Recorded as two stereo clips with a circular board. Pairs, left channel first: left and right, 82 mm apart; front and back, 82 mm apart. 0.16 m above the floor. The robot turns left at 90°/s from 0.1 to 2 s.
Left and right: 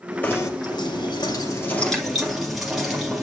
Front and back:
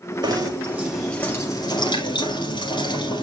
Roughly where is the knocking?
Behind left.